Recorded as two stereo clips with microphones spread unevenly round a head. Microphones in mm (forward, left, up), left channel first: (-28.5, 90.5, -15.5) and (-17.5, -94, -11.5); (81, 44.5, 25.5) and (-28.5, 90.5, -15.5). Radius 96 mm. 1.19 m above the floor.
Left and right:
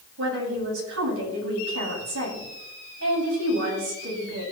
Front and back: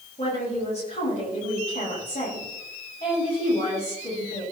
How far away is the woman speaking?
About 8.5 m.